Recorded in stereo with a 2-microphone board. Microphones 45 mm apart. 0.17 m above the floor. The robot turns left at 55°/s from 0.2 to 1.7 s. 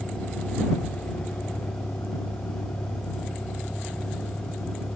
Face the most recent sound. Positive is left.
turn(degrees=60)